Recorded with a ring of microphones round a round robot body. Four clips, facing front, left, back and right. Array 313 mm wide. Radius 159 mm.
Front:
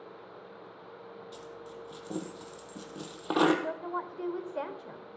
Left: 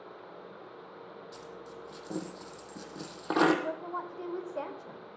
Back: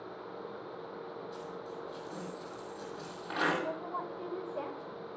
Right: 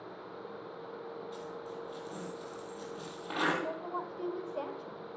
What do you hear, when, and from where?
1.3 s a dropped coin: 40° left, 2 m
3.6 s a woman speaking: 15° left, 1.5 m